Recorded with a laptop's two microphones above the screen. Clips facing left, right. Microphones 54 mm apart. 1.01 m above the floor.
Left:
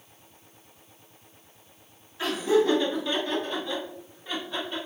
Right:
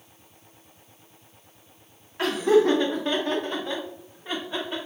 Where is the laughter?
60° right (ahead or behind), 1.3 m; by 4.8 s 25° right (ahead or behind), 1.8 m.